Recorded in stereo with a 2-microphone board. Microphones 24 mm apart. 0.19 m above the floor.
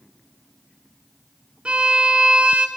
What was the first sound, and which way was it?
A violin, 65° right (ahead or behind).